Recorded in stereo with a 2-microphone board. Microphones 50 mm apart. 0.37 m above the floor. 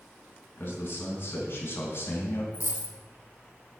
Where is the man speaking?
45° left (ahead or behind), 4 m; by 2.4 s 50° left (ahead or behind), 2.5 m.